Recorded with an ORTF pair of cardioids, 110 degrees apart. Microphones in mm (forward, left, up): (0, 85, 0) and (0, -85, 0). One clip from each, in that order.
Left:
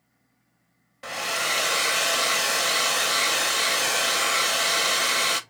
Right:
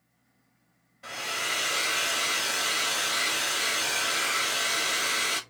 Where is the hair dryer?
55° left, 0.8 m.